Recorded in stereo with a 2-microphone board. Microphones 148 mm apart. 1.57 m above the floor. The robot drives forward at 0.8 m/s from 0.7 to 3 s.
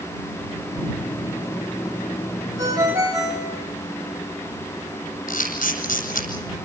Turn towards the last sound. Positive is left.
turn(degrees=75)  # may be behind; listen again after turning